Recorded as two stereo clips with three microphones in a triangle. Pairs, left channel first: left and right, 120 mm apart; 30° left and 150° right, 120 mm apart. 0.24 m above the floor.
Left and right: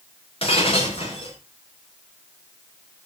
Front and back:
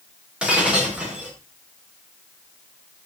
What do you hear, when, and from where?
0.4 s breaking glass: 130° left, 9 m